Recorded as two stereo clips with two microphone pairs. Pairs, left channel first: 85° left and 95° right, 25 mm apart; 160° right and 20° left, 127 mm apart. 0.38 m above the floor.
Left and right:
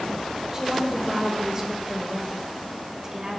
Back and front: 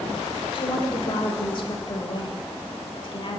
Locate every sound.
0.5 s a woman speaking: 150° right, 1.3 m